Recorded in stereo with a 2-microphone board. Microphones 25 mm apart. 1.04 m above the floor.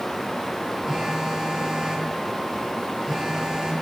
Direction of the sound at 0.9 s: 20° right (ahead or behind).